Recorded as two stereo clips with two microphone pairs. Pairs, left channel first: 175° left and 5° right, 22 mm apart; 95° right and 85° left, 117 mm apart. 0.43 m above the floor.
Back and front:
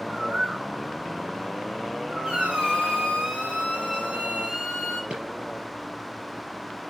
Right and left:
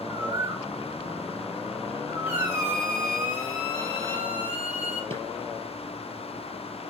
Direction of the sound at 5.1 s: 40° left.